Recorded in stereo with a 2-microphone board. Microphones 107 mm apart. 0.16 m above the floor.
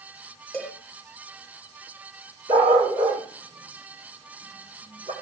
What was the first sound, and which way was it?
A cowbell, 10° left (ahead or behind).